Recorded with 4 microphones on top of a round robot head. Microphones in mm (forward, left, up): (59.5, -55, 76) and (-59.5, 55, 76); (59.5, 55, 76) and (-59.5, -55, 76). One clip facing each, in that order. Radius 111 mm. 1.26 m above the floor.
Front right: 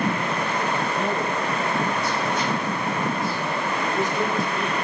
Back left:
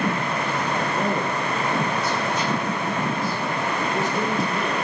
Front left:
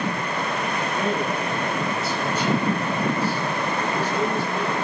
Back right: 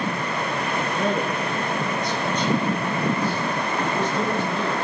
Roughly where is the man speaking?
Behind left.